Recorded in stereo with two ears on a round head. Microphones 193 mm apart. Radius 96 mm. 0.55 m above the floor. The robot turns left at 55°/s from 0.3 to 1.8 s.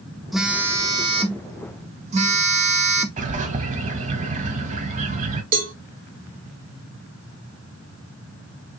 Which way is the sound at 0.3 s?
Straight ahead.